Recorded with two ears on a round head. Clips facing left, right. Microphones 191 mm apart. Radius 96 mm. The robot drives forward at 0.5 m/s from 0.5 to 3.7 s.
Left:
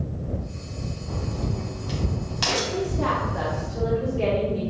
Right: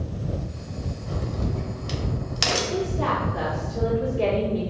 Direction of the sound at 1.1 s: 30° right (ahead or behind).